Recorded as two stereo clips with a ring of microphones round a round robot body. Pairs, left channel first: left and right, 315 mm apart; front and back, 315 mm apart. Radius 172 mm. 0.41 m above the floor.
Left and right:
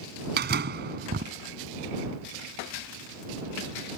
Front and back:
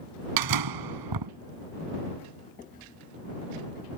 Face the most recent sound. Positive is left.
turn(degrees=-155)